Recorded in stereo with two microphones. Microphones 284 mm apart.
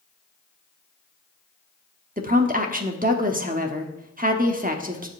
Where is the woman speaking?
30° right (ahead or behind), 1.1 m.